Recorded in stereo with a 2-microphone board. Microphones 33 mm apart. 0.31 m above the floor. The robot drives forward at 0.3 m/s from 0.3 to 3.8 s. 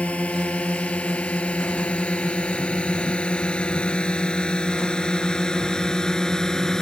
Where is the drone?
45° left (ahead or behind); by 6.8 s 15° left (ahead or behind).